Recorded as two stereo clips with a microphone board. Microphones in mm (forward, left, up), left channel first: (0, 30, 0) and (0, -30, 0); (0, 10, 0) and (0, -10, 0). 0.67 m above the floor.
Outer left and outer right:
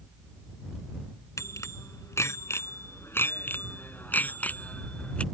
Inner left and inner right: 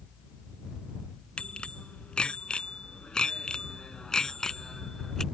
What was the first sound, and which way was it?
A bicycle bell, 60° left (ahead or behind).